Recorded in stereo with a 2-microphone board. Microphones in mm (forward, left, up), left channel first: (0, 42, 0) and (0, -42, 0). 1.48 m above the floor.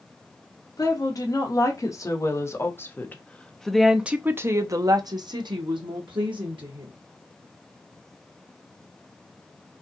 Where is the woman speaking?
50° left (ahead or behind), 2 m; by 6.9 s 80° right, 1.6 m.